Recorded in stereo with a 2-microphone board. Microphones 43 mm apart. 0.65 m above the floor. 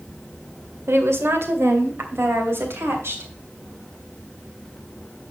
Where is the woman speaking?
75° right (ahead or behind), 1.8 m; by 3.3 s 65° right (ahead or behind), 3.5 m.